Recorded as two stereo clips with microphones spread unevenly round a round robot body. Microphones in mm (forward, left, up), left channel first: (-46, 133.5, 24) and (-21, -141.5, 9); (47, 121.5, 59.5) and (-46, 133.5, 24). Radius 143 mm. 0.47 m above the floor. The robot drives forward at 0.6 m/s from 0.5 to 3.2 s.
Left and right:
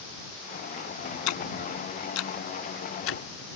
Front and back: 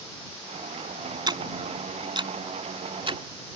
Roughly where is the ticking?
Behind left.